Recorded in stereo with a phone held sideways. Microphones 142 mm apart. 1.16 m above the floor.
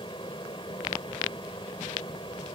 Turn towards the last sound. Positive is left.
turn(degrees=35)  # may be behind; listen again after turning